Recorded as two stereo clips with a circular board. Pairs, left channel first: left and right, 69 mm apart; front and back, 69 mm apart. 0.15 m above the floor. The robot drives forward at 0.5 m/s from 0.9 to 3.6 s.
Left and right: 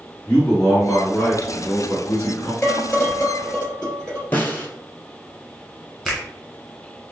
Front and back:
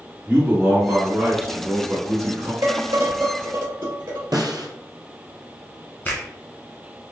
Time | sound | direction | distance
0.3 | a man speaking | 125° left | 1.2 m
2.6 | dishes clattering | 160° left | 1.8 m
4.3 | a snare drum | 155° left | 0.8 m
6.0 | a finger snap | straight ahead | 1.5 m